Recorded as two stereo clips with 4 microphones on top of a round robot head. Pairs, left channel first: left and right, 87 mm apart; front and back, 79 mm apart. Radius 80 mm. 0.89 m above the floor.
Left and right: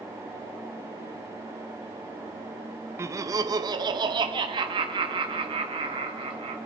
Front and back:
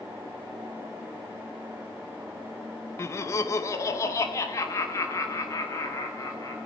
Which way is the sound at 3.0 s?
40° right.